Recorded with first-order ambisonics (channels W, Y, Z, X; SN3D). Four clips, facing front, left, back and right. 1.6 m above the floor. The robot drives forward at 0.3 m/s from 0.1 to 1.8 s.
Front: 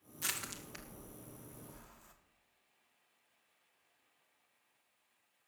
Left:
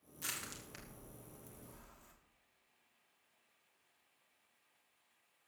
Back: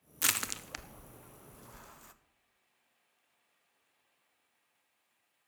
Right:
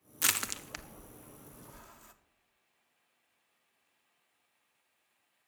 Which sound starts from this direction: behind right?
Crushing, at 0.2 s.